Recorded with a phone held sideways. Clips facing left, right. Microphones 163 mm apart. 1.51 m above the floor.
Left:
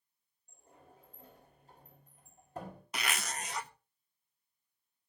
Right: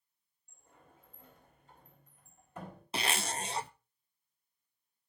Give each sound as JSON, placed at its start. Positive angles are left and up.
{"t": 0.5, "sound": "a sliding door", "side_deg": 40, "distance_m": 4.5}
{"t": 2.9, "sound": "a zipper", "side_deg": -30, "distance_m": 0.5}